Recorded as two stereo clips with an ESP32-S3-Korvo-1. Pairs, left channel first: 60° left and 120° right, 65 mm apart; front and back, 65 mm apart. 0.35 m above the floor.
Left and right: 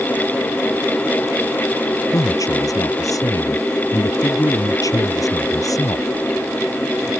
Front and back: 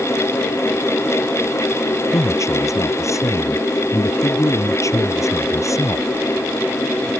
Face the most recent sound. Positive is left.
turn(degrees=35)